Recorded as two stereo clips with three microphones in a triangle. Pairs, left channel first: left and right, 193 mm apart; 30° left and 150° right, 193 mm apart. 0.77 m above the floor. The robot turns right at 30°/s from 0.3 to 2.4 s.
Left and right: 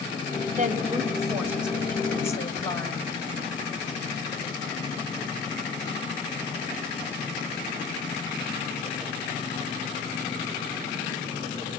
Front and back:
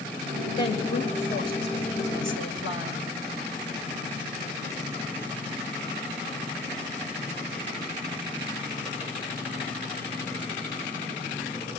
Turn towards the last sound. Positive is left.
turn(degrees=20)